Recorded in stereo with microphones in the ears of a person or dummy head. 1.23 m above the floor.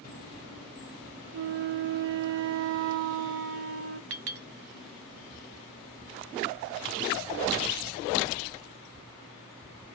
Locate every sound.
1.3 s a flute: 60° right (ahead or behind), 0.8 m
4.1 s a clink: 60° right (ahead or behind), 0.9 m